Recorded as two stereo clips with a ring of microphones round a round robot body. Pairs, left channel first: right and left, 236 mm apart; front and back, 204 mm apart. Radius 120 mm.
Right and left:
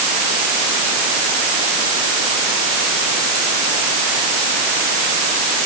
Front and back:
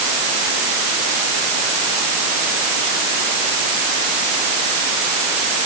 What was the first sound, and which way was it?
Only background noise.